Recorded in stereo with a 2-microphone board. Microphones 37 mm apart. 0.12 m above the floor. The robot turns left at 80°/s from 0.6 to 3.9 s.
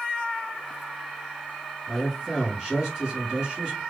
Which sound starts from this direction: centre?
A man speaking, at 1.9 s.